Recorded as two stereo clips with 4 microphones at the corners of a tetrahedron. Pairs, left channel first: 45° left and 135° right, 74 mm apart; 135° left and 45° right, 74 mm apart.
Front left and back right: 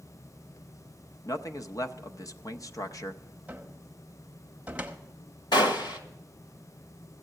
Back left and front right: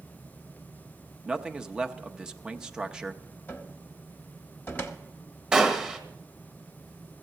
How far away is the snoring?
No snoring in this recording.